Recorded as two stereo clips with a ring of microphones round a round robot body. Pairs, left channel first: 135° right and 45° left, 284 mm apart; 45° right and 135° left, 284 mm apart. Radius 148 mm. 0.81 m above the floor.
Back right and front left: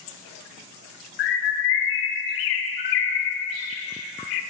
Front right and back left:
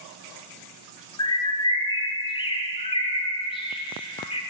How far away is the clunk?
No clunk in this recording.